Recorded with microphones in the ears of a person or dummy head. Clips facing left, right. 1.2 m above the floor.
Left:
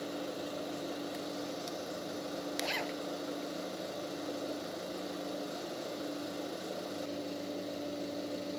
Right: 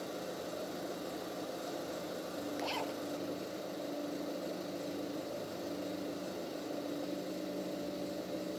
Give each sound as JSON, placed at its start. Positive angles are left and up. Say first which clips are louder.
{"t": 2.6, "sound": "a zipper", "louder": "left 1 dB", "side_deg": 30}